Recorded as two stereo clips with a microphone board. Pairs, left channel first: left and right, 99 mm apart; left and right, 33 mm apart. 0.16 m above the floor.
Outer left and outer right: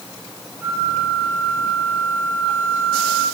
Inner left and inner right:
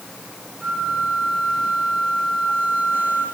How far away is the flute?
About 5.5 m.